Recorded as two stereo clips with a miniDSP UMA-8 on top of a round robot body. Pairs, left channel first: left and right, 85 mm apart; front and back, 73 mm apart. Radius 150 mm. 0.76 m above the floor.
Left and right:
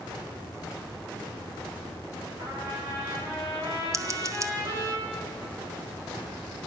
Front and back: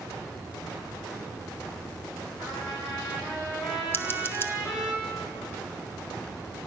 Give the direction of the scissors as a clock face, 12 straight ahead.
2 o'clock.